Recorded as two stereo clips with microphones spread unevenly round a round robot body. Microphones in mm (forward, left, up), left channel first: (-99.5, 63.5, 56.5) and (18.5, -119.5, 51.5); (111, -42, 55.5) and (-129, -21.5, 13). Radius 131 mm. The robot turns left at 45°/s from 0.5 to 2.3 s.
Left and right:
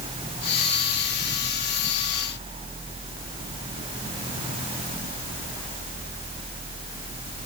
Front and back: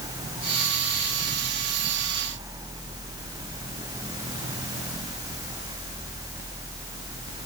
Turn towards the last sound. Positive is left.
No sound to turn to.